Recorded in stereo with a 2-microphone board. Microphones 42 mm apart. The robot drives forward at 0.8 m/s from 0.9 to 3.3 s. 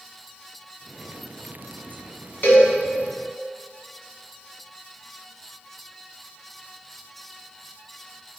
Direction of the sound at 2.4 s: 50° left (ahead or behind).